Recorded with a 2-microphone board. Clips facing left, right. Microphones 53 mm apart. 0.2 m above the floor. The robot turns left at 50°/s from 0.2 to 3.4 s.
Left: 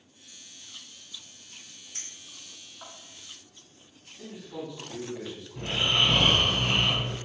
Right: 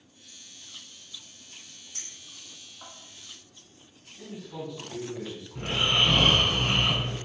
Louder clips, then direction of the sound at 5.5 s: Right 1 dB; 45° right (ahead or behind).